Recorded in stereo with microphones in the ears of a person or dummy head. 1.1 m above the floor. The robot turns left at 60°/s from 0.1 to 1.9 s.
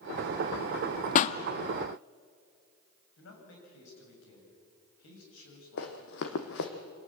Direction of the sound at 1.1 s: 40° left (ahead or behind).